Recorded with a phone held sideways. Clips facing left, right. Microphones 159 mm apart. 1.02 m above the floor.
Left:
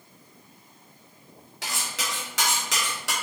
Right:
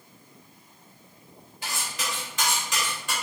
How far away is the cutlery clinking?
About 1.5 m.